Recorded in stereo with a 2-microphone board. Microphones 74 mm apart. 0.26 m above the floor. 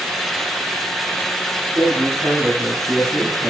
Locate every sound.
1.7 s a man speaking: 55° right (ahead or behind), 4 m; by 3.5 s 40° right (ahead or behind), 3 m